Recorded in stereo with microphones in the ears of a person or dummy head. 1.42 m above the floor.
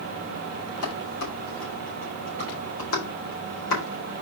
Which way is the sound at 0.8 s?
80° left.